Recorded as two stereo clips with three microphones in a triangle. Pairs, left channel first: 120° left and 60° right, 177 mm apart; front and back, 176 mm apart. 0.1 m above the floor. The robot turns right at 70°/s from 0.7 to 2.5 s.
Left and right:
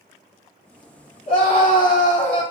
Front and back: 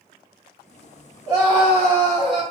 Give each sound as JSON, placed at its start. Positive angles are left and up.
{"t": 1.3, "sound": "a scream", "azimuth_deg": 120, "distance_m": 2.0}